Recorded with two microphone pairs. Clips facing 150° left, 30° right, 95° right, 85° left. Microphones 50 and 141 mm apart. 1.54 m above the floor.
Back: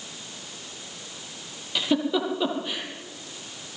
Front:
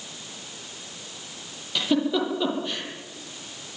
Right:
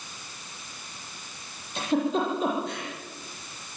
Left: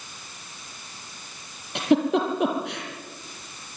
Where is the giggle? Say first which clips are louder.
Front 1 dB, left 5 dB; 70° left, 7 m.